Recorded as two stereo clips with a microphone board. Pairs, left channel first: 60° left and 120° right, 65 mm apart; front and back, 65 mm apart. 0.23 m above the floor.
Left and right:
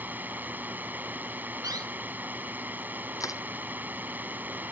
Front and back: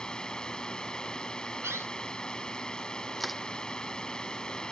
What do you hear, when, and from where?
0.0 s a drone: 70° right
1.6 s a door slam: 130° right
3.2 s crushing: 90° left